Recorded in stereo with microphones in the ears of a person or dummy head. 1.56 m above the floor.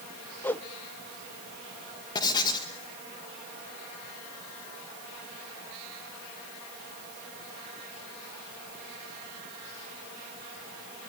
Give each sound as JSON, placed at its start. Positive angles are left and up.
{"t": 0.4, "sound": "a whoosh", "side_deg": 10, "distance_m": 0.7}
{"t": 2.1, "sound": "writing", "side_deg": 25, "distance_m": 2.0}